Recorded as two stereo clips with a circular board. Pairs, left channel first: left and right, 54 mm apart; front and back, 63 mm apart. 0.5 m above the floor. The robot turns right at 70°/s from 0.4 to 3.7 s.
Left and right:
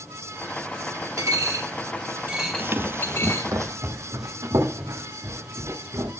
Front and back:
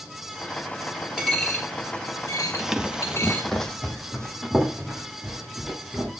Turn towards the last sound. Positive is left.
turn(degrees=-90)